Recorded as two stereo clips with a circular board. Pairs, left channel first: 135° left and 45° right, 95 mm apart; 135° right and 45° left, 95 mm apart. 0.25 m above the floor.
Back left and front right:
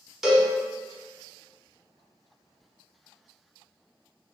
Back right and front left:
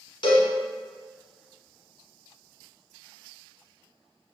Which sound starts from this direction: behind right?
A cowbell, at 0.2 s.